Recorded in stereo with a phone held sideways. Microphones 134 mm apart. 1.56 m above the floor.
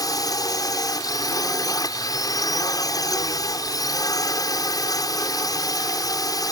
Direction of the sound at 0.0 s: 25° left (ahead or behind).